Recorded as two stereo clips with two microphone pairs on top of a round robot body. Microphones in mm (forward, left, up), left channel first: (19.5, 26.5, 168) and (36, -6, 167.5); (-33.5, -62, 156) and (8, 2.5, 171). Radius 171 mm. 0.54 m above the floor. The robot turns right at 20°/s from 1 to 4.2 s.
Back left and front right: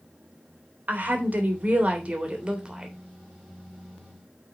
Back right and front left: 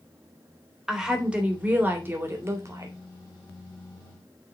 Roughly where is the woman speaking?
Ahead right.